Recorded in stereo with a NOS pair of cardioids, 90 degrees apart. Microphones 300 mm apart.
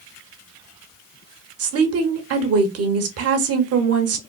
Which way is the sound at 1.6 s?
55° right.